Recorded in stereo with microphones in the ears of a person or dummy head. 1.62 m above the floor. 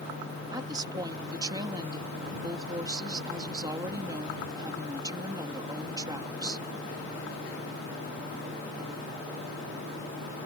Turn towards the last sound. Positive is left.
turn(degrees=-25)  # may be behind; listen again after turning